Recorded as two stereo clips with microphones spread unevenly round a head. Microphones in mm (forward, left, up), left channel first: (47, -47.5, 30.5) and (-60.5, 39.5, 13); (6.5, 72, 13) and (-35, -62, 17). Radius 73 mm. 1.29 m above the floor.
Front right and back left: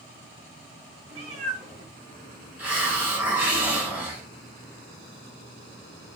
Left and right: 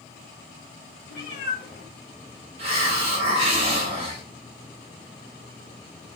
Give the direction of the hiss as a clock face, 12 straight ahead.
4 o'clock.